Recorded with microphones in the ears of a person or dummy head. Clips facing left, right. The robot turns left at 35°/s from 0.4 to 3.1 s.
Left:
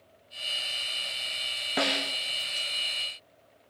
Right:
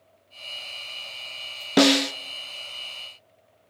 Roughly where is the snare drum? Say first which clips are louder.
Right 13 dB; right.